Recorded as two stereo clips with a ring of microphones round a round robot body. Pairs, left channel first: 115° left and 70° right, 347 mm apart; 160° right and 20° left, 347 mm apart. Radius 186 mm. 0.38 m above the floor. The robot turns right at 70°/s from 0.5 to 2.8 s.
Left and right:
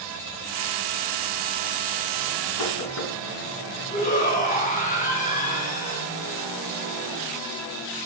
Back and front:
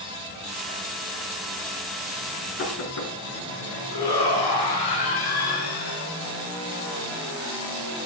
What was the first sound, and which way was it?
Knocking, 145° left.